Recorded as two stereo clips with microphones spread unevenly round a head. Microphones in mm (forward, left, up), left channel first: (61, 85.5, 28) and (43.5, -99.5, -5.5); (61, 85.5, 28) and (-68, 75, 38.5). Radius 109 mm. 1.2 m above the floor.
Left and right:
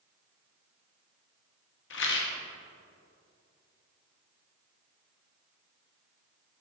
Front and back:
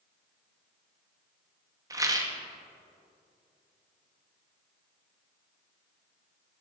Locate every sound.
1.9 s a rattle: 120° left, 1.1 m